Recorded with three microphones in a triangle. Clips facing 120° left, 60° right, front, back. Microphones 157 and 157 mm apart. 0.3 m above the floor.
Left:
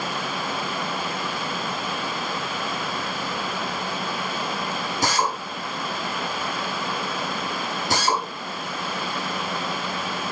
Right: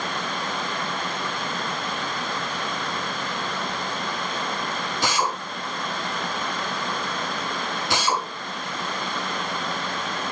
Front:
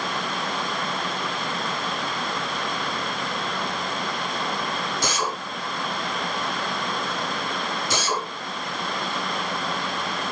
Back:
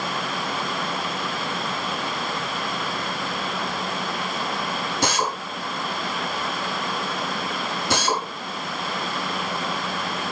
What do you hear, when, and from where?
5.0 s a drill: 165° left, 4 m